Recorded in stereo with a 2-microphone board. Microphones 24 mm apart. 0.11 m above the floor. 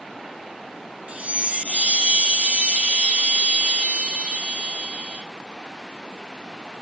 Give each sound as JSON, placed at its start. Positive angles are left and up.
{"t": 1.1, "sound": "a chime", "side_deg": -75, "distance_m": 3.0}